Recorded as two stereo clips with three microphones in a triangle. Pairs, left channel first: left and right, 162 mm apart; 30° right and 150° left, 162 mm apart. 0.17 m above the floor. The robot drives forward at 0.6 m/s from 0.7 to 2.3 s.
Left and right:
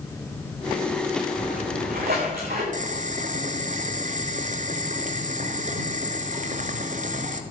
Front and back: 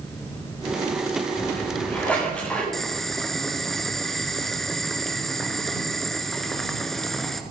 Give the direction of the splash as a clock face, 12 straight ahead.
4 o'clock.